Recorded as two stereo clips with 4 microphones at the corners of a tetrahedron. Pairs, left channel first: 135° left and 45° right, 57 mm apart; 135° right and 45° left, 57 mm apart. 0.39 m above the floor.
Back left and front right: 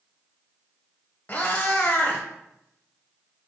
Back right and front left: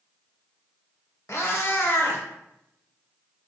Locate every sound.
1.3 s a cat meowing: 170° right, 0.5 m